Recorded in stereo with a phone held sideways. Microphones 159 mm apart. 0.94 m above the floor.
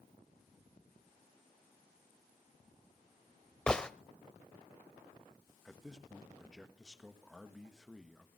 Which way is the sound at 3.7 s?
5° left (ahead or behind).